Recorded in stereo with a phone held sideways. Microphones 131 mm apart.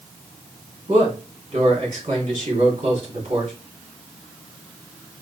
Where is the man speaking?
65° right (ahead or behind), 3 m.